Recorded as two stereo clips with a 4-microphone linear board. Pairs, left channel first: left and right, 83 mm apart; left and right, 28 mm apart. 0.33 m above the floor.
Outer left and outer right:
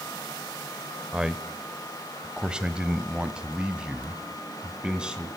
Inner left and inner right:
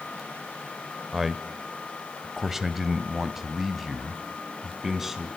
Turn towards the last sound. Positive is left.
turn(degrees=-10)  # may be behind; listen again after turning